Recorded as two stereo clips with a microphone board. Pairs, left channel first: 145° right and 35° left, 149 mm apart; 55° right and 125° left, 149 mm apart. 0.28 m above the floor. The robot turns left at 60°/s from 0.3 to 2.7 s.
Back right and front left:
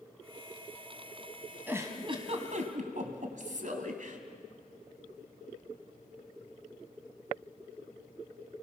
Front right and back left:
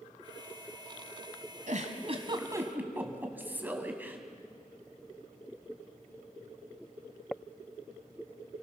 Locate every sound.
1.7 s a giggle: 110° left, 2.5 m; by 4.2 s 50° left, 2.5 m